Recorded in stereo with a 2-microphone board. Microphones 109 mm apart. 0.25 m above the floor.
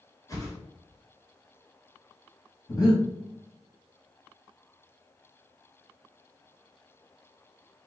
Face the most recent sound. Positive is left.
turn(degrees=35)  # may be behind; listen again after turning